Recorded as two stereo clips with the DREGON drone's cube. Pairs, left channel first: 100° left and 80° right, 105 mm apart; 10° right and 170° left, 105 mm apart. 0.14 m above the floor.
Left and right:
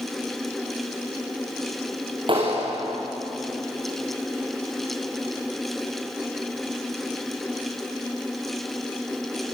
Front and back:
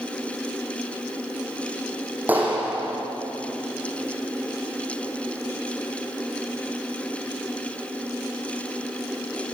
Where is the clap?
115° right, 6 m.